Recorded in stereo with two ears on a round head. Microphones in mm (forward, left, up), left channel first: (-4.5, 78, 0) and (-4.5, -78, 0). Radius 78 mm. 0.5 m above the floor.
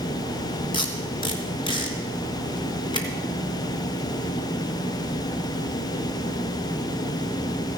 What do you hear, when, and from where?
0.7 s tape being pulled: 25° left (ahead or behind), 3 m